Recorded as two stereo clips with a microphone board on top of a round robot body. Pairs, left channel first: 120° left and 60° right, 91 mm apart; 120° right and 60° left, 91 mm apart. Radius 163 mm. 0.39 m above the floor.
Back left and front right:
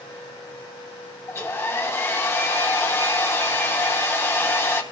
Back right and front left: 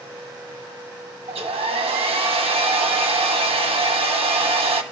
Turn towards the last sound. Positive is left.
turn(degrees=55)